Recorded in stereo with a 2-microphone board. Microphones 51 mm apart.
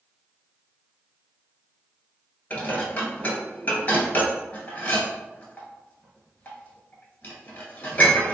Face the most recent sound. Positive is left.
turn(degrees=35)  # may be behind; listen again after turning